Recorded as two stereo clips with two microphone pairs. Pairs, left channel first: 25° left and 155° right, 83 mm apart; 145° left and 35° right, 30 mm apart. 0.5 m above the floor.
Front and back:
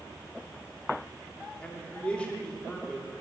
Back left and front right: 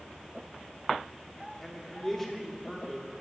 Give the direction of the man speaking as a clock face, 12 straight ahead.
9 o'clock.